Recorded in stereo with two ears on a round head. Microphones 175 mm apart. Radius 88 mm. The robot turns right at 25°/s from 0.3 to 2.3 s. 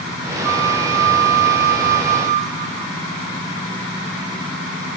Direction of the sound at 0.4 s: 90° right.